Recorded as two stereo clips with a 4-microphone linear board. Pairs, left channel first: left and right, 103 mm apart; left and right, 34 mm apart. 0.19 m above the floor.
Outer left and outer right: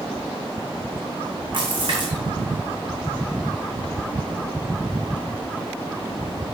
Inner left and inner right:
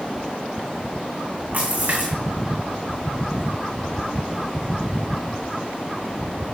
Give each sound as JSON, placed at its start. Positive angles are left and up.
{"t": 1.5, "sound": "a splash", "side_deg": -50, "distance_m": 2.5}